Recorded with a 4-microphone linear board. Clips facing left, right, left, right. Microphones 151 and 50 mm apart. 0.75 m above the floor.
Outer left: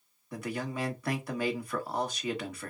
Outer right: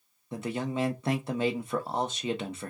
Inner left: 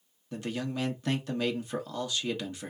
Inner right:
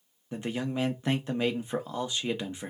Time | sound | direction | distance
0.3 | a man speaking | 25° right (ahead or behind) | 0.9 m